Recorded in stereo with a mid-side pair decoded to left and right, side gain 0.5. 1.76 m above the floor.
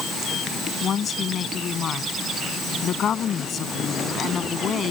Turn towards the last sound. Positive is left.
turn(degrees=50)